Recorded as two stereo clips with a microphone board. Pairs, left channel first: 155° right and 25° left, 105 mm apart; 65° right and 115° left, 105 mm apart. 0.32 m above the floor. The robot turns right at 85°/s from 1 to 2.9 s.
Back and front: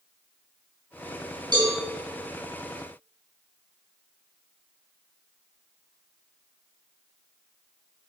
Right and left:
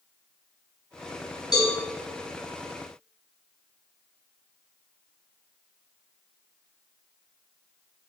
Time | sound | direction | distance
1.5 | a cowbell | 20° right | 3 m